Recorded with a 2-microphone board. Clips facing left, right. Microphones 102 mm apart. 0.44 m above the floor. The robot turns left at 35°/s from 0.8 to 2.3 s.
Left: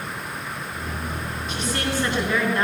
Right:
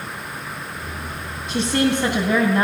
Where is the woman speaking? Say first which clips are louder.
Right 8 dB; 70° right (ahead or behind), 3.5 m; by 2.6 s 50° right (ahead or behind), 3.5 m.